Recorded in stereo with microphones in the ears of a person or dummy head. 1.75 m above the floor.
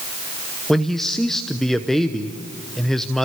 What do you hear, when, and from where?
0.7 s a man speaking: centre (ahead or behind), 0.9 m